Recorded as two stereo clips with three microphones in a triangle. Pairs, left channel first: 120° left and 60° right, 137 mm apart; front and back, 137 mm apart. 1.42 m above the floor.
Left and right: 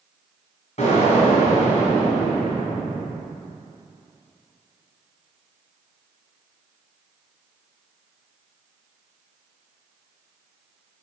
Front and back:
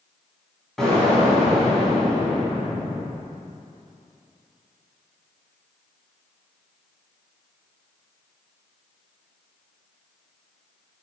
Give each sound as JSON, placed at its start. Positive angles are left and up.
{"t": 0.8, "sound": "an explosion", "azimuth_deg": 85, "distance_m": 4.0}